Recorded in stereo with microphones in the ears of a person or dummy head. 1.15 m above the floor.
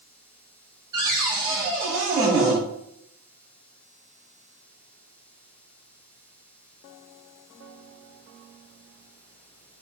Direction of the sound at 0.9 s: 25° right (ahead or behind).